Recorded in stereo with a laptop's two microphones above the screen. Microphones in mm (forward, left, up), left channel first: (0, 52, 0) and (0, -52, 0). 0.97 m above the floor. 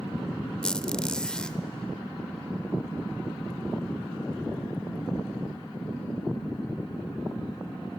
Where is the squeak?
10° left (ahead or behind), 0.7 m.